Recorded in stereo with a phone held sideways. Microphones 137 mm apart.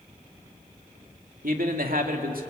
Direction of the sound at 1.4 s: 80° right.